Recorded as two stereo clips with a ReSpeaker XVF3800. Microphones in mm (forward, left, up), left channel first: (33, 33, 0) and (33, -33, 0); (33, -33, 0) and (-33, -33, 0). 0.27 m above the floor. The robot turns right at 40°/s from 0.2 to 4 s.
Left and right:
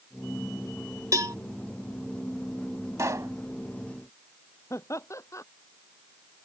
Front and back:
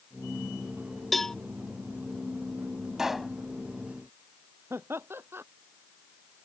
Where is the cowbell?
90° right; by 1.4 s 80° right.